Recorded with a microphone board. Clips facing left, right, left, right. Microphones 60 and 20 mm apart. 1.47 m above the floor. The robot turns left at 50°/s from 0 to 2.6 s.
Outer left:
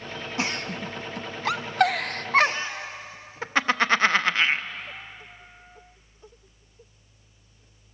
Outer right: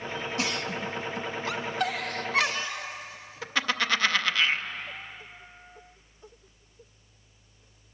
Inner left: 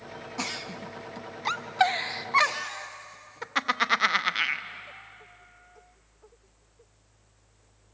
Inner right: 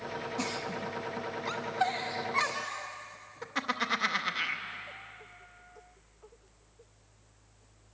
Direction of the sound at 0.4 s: 30° left (ahead or behind).